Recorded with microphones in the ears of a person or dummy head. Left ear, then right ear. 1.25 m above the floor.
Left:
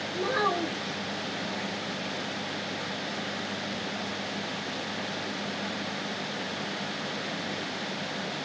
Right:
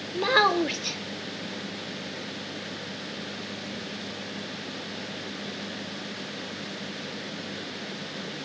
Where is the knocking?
No knocking in this recording.